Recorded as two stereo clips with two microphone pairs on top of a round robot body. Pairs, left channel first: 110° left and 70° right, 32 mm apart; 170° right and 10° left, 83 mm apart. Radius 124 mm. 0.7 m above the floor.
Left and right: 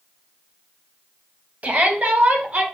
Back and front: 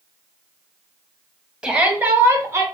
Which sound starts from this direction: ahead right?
A shout, at 1.6 s.